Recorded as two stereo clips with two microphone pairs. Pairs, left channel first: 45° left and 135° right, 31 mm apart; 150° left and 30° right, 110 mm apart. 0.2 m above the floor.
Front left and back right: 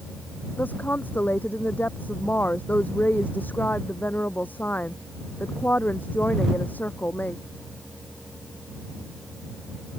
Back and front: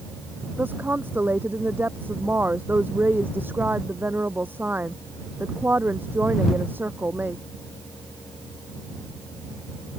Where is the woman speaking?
40° left.